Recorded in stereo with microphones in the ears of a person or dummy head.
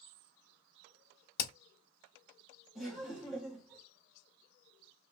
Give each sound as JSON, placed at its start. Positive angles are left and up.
{"t": 1.4, "sound": "hammering", "side_deg": 60, "distance_m": 1.0}
{"t": 2.8, "sound": "laughter", "side_deg": -5, "distance_m": 1.4}